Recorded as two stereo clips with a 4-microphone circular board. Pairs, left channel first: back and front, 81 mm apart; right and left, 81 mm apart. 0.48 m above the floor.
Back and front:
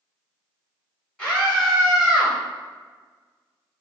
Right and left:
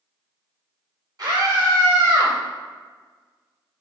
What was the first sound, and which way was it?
A scream, 85° left.